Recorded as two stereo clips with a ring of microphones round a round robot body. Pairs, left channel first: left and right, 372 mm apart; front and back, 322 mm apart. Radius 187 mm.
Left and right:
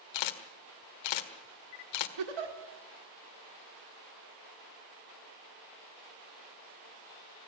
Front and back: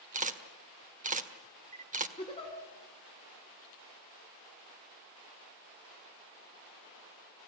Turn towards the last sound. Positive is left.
turn(degrees=-75)